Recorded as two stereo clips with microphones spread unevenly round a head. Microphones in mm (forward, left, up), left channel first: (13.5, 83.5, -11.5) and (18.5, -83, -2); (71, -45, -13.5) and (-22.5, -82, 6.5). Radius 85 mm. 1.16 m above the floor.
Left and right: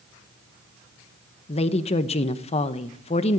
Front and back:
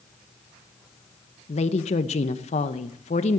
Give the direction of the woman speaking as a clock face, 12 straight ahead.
11 o'clock.